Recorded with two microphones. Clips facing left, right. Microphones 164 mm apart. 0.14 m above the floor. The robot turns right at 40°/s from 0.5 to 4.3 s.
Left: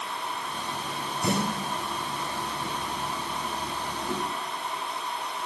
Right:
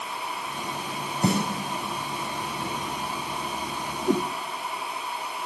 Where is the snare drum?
75° right (ahead or behind), 5 m; by 1.4 s 70° right (ahead or behind), 5 m.